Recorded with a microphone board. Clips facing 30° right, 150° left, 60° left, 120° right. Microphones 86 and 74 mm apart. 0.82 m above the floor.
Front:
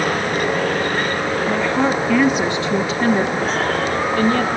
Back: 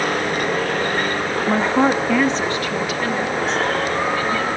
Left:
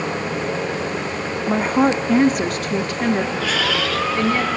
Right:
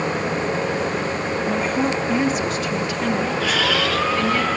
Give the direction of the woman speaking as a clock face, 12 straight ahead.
8 o'clock.